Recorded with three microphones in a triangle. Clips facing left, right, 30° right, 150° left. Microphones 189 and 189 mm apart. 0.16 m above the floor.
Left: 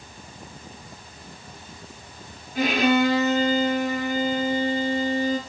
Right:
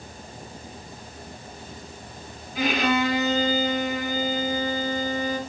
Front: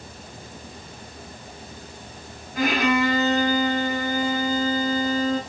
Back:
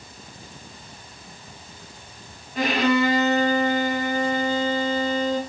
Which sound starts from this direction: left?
A violin, at 2.5 s.